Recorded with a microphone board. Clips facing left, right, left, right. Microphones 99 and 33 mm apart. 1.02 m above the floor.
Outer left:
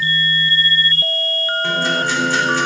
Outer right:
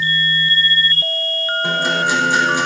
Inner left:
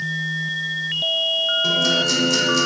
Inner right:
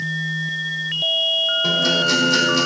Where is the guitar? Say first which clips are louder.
Outer right 1 dB, inner right 1 dB; 15° right (ahead or behind), 3 m.